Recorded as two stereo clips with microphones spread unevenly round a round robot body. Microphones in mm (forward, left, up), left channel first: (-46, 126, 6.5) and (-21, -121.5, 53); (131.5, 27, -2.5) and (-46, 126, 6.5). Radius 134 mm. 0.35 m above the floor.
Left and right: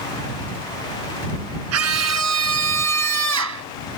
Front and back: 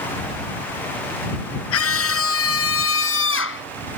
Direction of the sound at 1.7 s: 50° right.